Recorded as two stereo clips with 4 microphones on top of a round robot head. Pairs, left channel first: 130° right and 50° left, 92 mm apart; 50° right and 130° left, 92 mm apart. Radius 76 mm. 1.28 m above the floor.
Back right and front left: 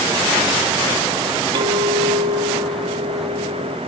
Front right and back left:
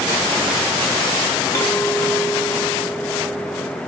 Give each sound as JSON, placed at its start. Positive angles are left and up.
{"t": 1.6, "sound": "a clink", "azimuth_deg": 10, "distance_m": 1.4}